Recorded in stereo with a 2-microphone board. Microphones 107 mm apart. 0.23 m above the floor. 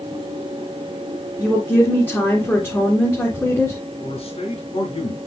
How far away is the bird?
No bird in this recording.